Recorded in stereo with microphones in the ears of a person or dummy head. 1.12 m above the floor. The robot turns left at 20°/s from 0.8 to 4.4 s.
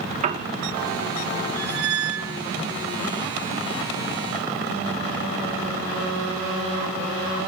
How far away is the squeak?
About 3.5 m.